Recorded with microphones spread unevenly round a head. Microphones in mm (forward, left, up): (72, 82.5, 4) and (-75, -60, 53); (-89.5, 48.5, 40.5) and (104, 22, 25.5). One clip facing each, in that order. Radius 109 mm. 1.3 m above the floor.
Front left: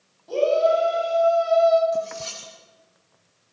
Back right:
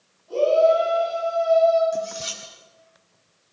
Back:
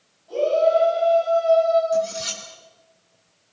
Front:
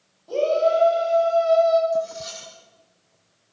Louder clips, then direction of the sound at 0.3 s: Back right 2 dB, back 1 dB; 20° left.